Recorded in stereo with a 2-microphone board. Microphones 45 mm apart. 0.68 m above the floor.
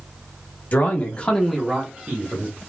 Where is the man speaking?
45° left (ahead or behind), 1.1 m; by 2.6 s 40° right (ahead or behind), 1.4 m.